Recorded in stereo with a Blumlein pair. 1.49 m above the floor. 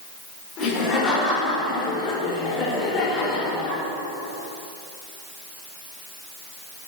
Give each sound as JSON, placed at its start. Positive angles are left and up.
{"t": 0.6, "sound": "laughter", "azimuth_deg": 30, "distance_m": 5.5}